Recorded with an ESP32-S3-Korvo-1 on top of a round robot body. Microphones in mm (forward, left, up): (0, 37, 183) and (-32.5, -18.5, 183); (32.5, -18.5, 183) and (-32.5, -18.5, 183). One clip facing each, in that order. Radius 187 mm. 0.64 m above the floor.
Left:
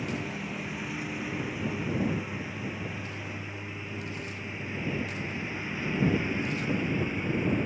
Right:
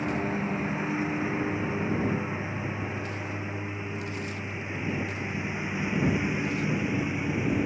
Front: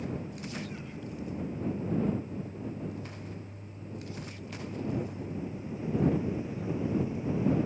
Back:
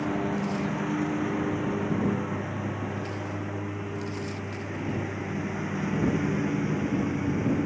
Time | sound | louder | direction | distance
0.0 | a lawn mower | right 5 dB, back 10 dB | straight behind | ?